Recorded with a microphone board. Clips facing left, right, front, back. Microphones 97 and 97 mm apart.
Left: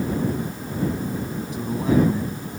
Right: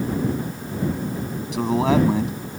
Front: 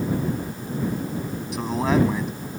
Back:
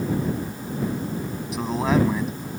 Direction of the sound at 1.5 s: 90° right.